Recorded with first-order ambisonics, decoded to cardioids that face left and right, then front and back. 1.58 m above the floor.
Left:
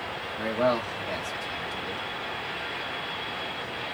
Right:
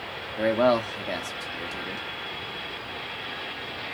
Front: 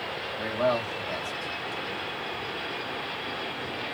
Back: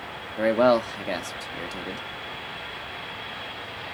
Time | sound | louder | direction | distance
0.4 | a man speaking | right 4 dB, back 7 dB | 155° right | 0.8 m